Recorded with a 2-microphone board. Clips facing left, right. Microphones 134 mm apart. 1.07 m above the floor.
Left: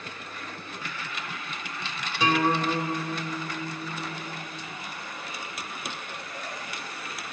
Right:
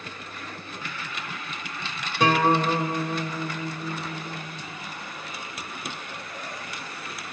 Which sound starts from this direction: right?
A guitar, at 2.2 s.